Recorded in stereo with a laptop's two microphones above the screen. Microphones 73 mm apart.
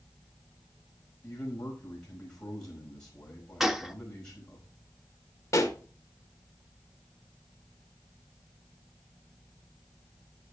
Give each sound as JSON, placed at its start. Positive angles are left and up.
{"t": 1.2, "sound": "a man speaking", "side_deg": 10, "distance_m": 5.0}
{"t": 3.6, "sound": "a gunshot", "side_deg": -5, "distance_m": 0.7}
{"t": 5.5, "sound": "a pop", "side_deg": 45, "distance_m": 1.7}